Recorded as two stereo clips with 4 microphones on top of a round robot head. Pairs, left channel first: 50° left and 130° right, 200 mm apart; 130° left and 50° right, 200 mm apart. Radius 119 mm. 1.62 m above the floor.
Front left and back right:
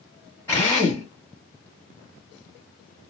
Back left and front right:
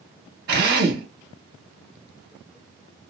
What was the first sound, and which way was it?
A drill, 25° right.